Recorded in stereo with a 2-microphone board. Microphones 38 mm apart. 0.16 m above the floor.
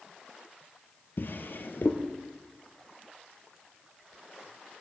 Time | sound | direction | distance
1.2 | a drawer | 60° left (ahead or behind) | 1.1 m